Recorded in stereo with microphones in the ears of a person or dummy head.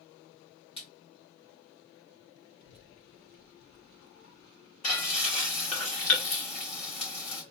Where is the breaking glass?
No breaking glass in this recording.